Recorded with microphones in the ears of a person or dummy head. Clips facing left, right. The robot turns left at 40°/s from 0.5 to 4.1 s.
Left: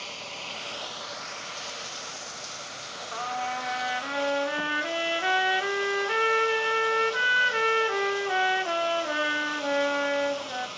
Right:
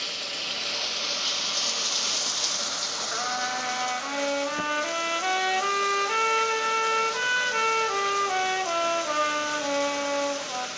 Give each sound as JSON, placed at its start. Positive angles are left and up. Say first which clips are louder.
{"t": 0.0, "sound": "running water", "louder": "right 2 dB", "azimuth_deg": -20, "distance_m": 0.9}
{"t": 3.1, "sound": "a trumpet", "louder": "even", "azimuth_deg": -160, "distance_m": 1.7}